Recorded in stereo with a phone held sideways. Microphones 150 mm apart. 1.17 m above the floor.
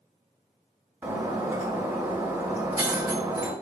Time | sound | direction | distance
1.0 | breaking glass | 15° right (ahead or behind) | 3.5 m